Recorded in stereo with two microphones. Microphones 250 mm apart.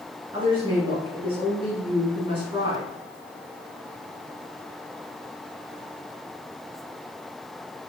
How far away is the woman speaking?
About 1.3 m.